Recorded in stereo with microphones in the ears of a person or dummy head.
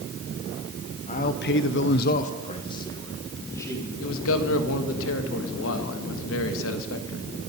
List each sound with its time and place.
1.1 s a man speaking: 35° left (ahead or behind), 1.2 m; by 3.9 s 10° left (ahead or behind), 3 m
4.0 s a man speaking: 75° left (ahead or behind), 1.5 m